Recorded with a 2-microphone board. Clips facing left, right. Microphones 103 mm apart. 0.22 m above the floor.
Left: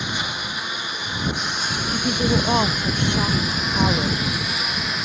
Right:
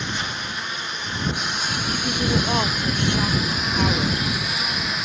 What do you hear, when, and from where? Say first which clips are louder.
0.0 s a lawn mower: left 1 dB; 10° left (ahead or behind); by 5.1 s 5° left (ahead or behind)
1.9 s a woman speaking: left 3 dB; 20° left (ahead or behind)